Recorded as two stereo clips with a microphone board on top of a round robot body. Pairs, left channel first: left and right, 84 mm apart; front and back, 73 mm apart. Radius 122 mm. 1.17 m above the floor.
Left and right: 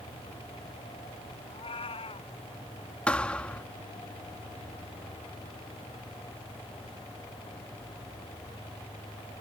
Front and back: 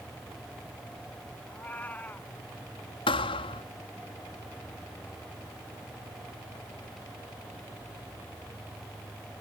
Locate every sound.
1.5 s a cat meowing: 70° left
3.1 s a thud: 10° left